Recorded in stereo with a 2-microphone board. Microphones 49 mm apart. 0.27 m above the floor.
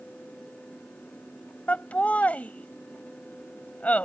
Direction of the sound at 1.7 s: 30° left (ahead or behind).